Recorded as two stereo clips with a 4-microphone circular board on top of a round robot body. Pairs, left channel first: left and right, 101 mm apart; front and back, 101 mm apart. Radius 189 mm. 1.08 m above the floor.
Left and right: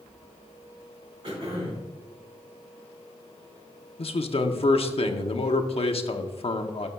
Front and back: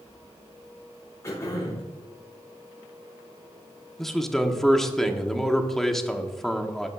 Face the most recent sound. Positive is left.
turn(degrees=85)